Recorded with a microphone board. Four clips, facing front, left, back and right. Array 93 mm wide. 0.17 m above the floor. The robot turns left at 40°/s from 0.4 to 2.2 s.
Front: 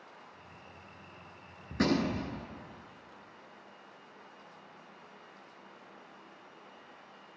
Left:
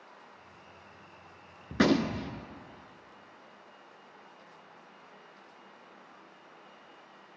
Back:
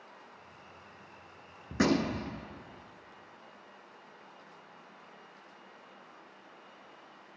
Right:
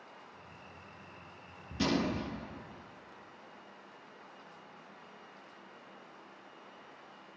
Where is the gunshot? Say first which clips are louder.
Left 6 dB, back 1 dB; 110° left, 0.7 m; by 2.4 s 90° left, 0.7 m.